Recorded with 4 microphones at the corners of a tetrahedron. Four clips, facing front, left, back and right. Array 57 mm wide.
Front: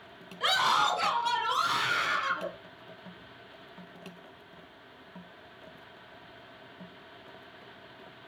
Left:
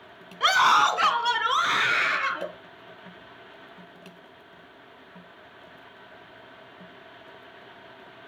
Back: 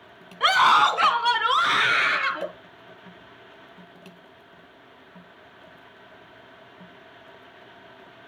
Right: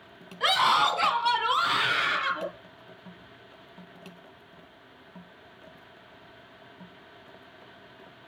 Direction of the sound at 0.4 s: 160° left.